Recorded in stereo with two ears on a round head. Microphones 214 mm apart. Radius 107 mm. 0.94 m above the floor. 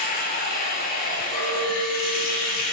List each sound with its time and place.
0.0 s running water: 40° left (ahead or behind), 0.8 m
1.3 s a clink: 30° left (ahead or behind), 0.8 m